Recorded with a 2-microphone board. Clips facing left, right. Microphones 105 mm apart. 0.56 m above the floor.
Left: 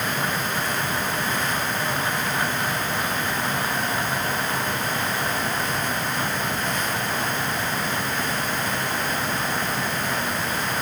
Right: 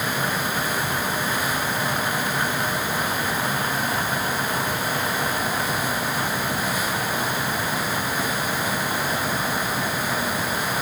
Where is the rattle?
No rattle in this recording.